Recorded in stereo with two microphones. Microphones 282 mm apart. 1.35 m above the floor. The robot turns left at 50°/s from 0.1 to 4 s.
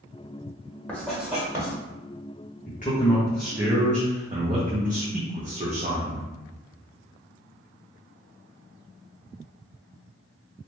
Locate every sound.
0.9 s writing: 5° left (ahead or behind), 1.1 m; by 1.7 s 15° right (ahead or behind), 1.1 m
2.7 s a man speaking: 40° left, 0.6 m; by 6.3 s 30° right, 0.6 m